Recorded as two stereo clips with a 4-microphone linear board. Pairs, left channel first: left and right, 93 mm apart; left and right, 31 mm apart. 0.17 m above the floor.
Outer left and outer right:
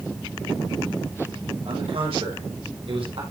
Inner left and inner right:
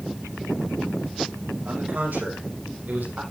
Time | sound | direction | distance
1.6 | a man speaking | 80° right | 7.5 m